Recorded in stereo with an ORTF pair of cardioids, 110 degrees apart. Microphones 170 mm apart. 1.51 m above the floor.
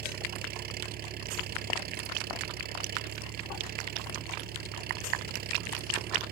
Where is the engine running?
70° right.